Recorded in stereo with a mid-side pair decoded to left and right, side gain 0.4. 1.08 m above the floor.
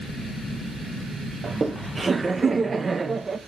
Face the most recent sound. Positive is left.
turn(degrees=-30)